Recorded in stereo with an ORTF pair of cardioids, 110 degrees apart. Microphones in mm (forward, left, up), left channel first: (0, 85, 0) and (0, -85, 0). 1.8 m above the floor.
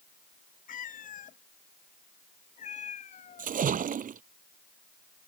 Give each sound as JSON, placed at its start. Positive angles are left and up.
{"t": 0.7, "sound": "a cat meowing", "azimuth_deg": 50}
{"t": 3.4, "sound": "a splash", "azimuth_deg": -50}